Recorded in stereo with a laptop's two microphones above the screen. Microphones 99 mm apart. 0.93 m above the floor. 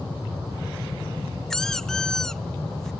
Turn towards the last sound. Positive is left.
turn(degrees=5)  # may be behind; listen again after turning